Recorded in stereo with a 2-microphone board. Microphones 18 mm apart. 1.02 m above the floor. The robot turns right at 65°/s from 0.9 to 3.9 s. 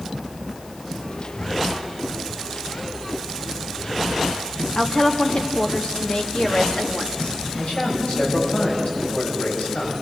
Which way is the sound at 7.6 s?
80° left.